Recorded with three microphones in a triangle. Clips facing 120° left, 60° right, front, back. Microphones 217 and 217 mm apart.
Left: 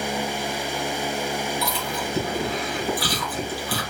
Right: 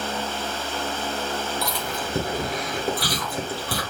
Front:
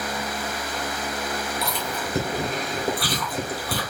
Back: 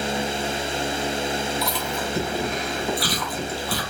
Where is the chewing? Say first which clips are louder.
Left 1 dB, back 2 dB; 25° right, 3 m.